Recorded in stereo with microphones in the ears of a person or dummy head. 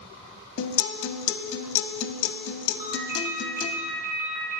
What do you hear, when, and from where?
0.6 s a guitar: 75° left (ahead or behind), 0.7 m
2.8 s a ringtone: 50° right (ahead or behind), 1.9 m